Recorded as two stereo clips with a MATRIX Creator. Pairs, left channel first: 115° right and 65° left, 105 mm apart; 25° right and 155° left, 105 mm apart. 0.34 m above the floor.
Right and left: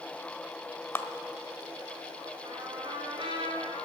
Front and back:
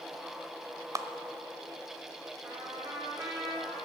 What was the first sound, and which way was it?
A clap, 165° right.